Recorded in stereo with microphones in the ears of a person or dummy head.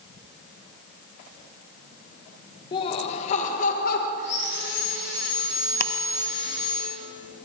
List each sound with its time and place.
2.7 s laughter: 30° left (ahead or behind), 1.5 m; by 4.1 s 60° left (ahead or behind), 1.4 m
4.2 s sawing: 65° left (ahead or behind), 8 m
5.8 s ticking: 55° left (ahead or behind), 0.9 m